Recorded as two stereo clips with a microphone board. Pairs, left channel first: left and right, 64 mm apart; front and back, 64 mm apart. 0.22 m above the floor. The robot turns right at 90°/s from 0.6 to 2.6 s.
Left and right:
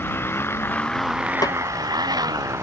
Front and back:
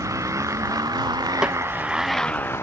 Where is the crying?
I don't hear crying.